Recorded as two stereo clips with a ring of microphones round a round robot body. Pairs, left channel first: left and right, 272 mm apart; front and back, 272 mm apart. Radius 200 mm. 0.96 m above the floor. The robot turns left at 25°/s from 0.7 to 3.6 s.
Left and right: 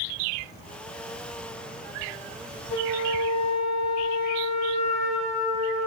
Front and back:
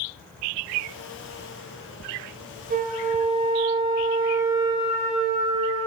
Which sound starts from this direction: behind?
A flute, at 2.7 s.